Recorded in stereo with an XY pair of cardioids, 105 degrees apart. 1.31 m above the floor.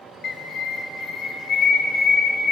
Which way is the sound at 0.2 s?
55° left.